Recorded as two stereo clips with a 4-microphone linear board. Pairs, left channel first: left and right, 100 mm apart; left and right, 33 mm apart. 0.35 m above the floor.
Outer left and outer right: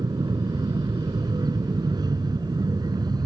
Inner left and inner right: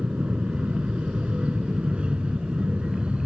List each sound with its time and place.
0.0 s an aircraft: 40° right (ahead or behind)